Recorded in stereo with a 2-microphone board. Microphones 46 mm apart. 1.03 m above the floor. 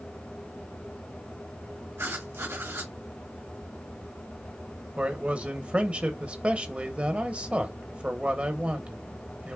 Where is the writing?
85° right, 1.9 m.